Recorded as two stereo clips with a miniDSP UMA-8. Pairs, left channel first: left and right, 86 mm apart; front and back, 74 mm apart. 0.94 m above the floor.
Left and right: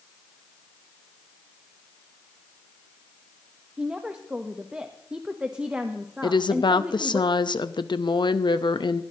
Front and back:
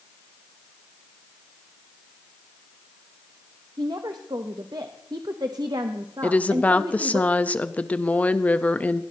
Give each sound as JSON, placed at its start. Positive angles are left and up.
{"t": 3.8, "sound": "a woman speaking", "azimuth_deg": -165, "distance_m": 0.7}
{"t": 6.2, "sound": "a woman speaking", "azimuth_deg": 65, "distance_m": 0.6}